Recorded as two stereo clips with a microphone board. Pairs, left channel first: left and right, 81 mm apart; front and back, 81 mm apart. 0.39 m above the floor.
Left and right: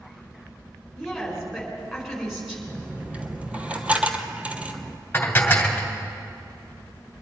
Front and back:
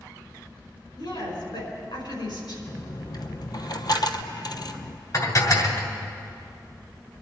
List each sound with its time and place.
0.9 s a woman speaking: 5° right, 5 m
2.7 s a dropped coin: 20° right, 0.9 m
5.1 s dishes clattering: 25° left, 1.7 m